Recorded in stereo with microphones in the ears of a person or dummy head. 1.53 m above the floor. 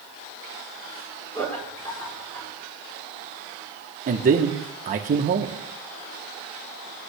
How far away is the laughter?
About 4.5 m.